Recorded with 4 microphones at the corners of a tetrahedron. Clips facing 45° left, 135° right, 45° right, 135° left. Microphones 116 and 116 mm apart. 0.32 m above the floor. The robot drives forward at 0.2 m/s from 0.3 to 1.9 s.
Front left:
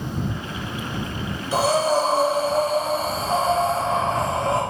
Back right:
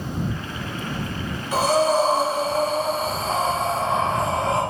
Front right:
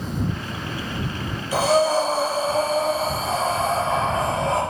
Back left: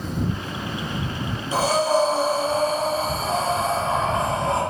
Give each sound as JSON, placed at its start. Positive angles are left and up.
{"t": 1.5, "sound": "breathing", "azimuth_deg": -165, "distance_m": 4.5}